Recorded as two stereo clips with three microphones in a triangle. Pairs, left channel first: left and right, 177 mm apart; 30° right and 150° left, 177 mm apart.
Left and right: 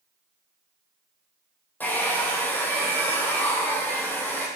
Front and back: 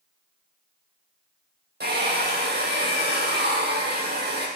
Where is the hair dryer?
170° left, 4 m.